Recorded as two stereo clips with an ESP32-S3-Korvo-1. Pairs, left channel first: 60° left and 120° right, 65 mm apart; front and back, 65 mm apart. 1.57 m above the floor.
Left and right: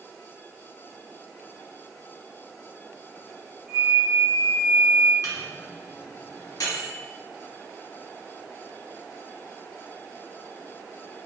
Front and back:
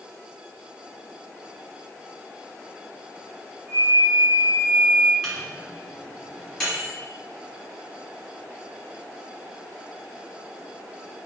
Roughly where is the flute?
Behind.